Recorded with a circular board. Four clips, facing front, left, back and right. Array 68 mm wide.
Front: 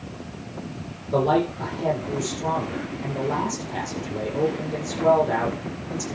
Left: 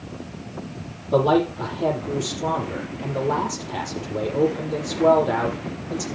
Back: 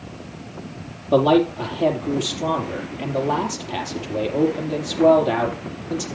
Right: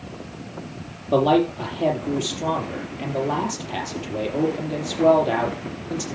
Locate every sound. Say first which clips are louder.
1.1 s a man speaking: right 1 dB, back 5 dB; 155° right, 5.5 m